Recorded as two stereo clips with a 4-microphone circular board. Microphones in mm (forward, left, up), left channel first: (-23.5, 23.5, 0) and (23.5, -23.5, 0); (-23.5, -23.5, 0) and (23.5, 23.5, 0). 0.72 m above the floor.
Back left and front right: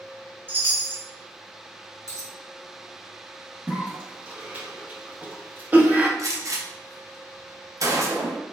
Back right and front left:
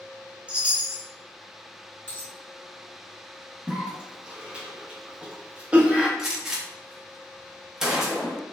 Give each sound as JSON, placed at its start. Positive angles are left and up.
{"t": 0.5, "sound": "a chime", "azimuth_deg": -15, "distance_m": 0.6}
{"t": 2.1, "sound": "a dropped coin", "azimuth_deg": -75, "distance_m": 1.0}
{"t": 3.7, "sound": "a cough", "azimuth_deg": -10, "distance_m": 0.5}
{"t": 6.2, "sound": "a gunshot", "azimuth_deg": -35, "distance_m": 0.6}